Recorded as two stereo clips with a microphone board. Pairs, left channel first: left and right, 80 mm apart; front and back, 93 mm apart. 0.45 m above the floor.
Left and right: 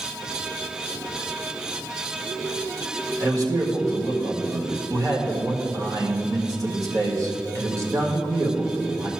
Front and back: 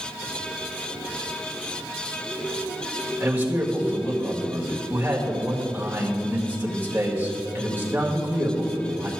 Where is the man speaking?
115° right, 1.8 m.